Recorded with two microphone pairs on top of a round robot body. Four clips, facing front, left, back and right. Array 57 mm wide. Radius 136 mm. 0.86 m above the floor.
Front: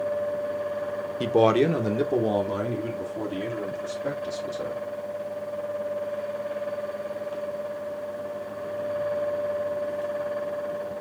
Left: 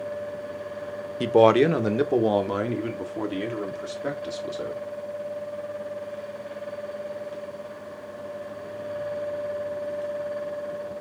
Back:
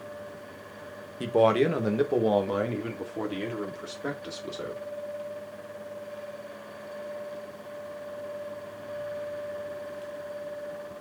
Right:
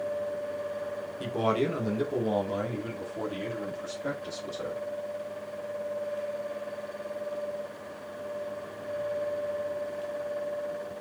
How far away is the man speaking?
About 0.8 m.